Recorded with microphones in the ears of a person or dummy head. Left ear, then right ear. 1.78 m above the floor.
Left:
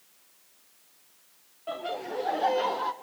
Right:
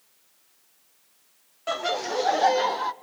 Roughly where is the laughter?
Right.